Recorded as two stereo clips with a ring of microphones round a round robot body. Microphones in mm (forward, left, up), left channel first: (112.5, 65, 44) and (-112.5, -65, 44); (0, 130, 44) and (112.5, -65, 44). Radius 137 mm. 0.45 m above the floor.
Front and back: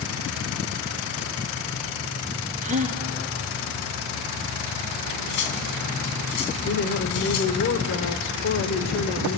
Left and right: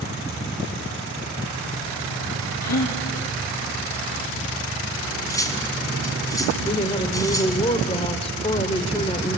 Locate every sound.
2.6 s a gasp: 145° left, 3 m
5.0 s cutlery clinking: 45° left, 2.5 m
6.6 s a woman speaking: 60° left, 1.8 m